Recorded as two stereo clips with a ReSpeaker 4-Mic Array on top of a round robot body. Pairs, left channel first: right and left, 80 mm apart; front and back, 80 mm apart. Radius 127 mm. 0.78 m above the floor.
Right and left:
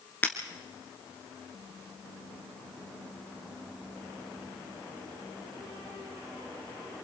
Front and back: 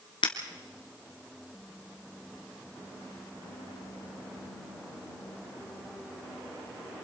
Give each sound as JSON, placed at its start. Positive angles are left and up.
{"t": 0.2, "sound": "breaking glass", "azimuth_deg": -25, "distance_m": 2.0}